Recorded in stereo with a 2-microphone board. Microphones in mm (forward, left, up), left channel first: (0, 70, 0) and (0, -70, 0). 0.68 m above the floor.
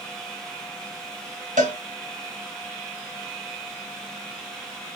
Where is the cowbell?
65° right (ahead or behind), 1.6 m.